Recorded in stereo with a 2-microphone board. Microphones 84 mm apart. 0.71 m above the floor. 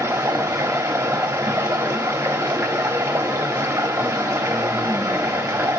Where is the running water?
30° right (ahead or behind), 1.1 m.